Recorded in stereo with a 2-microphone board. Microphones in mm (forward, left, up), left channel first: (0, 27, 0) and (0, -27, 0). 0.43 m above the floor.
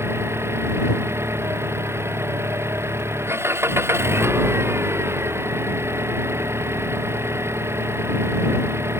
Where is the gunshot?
I don't hear a gunshot.